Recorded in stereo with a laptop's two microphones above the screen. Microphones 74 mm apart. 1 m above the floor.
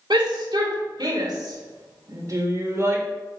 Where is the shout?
75° right (ahead or behind), 3 m; by 3.0 s 35° right (ahead or behind), 3 m.